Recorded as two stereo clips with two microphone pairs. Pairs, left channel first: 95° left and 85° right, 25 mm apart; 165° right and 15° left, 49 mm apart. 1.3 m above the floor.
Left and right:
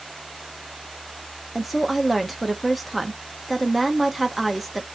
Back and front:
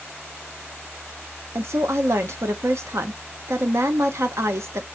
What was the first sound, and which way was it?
A woman speaking, straight ahead.